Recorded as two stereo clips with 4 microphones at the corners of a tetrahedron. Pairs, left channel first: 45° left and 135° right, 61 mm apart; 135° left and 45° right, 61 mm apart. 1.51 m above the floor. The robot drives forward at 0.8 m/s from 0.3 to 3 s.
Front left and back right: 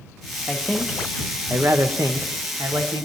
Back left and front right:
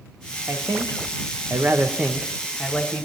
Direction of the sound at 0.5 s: 35° right.